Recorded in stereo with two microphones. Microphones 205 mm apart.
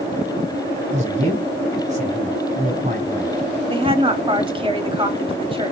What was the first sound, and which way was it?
A man speaking, 35° right (ahead or behind).